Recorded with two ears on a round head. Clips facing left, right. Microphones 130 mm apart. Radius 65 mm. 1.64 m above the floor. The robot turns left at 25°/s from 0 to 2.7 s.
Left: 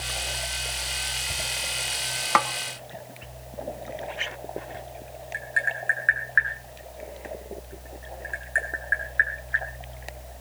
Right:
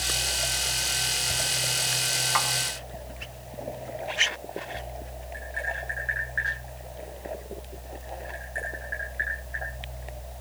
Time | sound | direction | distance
2.4 | a snare drum | 60° left (ahead or behind) | 1.2 m
5.3 | tapping | 70° left (ahead or behind) | 9.5 m